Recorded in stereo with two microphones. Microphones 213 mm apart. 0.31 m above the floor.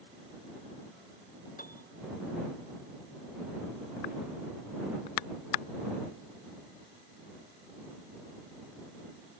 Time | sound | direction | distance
1.6 | a piano | 45° left (ahead or behind) | ?